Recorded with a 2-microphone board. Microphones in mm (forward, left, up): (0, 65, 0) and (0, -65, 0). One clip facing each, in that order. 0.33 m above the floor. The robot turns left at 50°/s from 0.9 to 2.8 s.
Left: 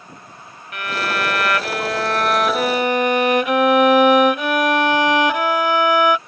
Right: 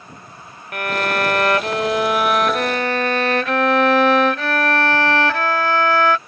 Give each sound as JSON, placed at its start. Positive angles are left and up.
{"t": 0.7, "sound": "a violin", "azimuth_deg": -105}